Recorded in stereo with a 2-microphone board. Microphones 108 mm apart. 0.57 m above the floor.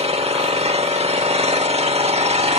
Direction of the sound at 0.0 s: 65° right (ahead or behind).